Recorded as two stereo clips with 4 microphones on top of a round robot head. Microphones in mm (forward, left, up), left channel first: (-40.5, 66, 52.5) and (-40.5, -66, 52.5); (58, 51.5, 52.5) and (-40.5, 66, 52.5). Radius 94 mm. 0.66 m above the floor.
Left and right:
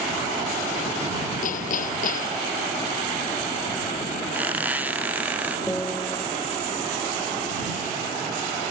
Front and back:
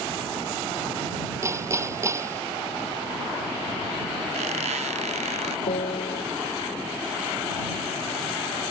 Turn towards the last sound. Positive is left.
turn(degrees=5)